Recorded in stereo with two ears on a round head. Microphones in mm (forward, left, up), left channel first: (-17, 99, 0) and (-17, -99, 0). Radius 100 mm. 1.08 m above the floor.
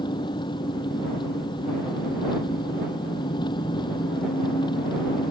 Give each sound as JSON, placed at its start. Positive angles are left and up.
{"t": 0.0, "sound": "an engine running", "side_deg": 20}